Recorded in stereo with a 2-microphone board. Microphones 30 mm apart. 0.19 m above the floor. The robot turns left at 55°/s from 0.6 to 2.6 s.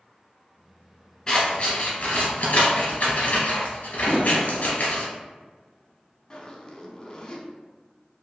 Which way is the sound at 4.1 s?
55° right (ahead or behind).